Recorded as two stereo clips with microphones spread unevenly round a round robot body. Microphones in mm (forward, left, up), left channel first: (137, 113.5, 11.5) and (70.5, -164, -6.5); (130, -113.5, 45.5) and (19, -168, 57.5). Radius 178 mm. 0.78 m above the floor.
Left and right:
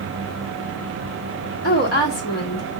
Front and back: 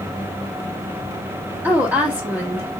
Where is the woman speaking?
130° left, 1.4 m.